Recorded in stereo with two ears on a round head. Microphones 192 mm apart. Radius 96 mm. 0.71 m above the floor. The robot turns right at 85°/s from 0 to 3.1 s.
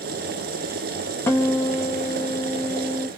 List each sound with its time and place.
1.3 s a guitar: 10° left (ahead or behind), 0.7 m; by 3.1 s centre (ahead or behind), 0.7 m